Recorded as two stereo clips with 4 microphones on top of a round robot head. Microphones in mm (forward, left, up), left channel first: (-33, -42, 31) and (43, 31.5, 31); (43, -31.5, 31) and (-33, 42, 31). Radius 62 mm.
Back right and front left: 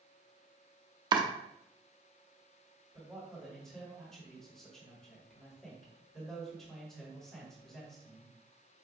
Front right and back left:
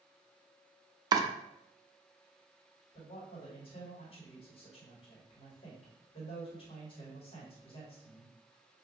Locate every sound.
1.1 s chopping: 90° left, 0.5 m
2.9 s a man speaking: 50° right, 1.6 m